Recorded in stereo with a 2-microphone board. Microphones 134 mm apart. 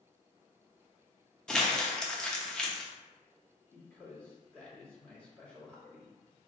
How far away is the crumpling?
About 0.7 m.